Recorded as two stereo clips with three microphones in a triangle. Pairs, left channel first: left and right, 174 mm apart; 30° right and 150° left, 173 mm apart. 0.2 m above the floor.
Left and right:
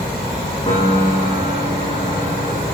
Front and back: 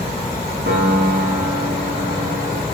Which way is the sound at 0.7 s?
145° left.